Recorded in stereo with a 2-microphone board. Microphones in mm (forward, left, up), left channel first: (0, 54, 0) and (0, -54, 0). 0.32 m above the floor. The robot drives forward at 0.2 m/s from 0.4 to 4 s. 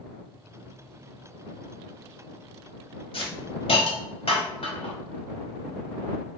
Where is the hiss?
60° left (ahead or behind), 0.8 m; by 5.0 s 65° left (ahead or behind), 0.7 m.